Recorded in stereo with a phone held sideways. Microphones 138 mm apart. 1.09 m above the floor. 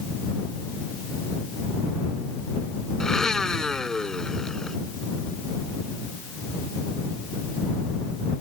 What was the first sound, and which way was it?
A blender, 5° left (ahead or behind).